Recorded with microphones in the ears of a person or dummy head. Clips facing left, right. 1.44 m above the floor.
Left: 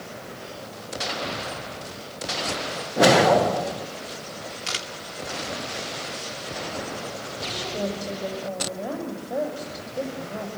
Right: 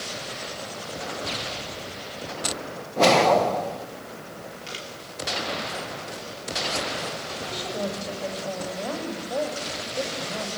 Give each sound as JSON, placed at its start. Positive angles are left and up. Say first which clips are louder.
{"t": 3.0, "sound": "a whoosh", "louder": "left 1 dB", "side_deg": 10, "distance_m": 0.8}
{"t": 4.7, "sound": "a camera shutter", "louder": "left 2 dB", "side_deg": 80, "distance_m": 2.5}
{"t": 7.5, "sound": "a woman speaking", "louder": "left 1 dB", "side_deg": 5, "distance_m": 6.5}